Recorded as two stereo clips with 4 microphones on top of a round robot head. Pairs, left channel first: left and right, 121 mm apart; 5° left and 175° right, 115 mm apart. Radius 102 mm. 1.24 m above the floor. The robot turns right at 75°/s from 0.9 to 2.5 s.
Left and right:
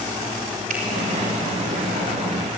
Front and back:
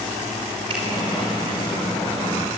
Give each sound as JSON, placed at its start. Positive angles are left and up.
{"t": 0.7, "sound": "a finger snap", "azimuth_deg": -120, "distance_m": 4.5}